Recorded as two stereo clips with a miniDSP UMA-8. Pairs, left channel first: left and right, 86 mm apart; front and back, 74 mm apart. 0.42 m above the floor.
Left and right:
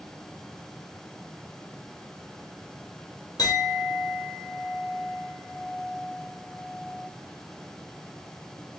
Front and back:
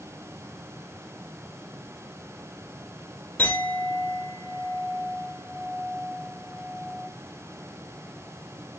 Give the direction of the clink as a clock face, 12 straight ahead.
10 o'clock.